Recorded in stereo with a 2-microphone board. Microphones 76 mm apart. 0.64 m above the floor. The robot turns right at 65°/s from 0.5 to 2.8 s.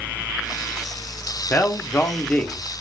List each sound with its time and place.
1.5 s a man speaking: 85° left, 0.6 m; by 2.6 s 160° left, 0.6 m